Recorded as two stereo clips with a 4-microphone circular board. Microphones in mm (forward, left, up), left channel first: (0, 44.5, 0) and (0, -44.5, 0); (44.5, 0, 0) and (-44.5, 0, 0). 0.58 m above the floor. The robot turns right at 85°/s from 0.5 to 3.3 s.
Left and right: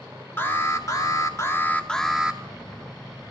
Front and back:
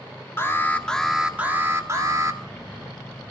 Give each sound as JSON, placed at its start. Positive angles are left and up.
{"t": 0.4, "sound": "an alarm", "azimuth_deg": 45, "distance_m": 1.6}